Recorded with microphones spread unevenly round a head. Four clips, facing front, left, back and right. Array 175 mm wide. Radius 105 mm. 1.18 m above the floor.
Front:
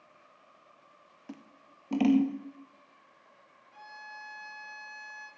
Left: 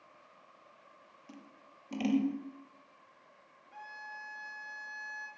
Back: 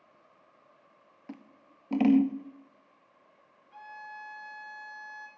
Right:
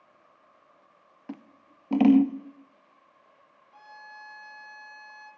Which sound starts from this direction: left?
A violin, at 3.7 s.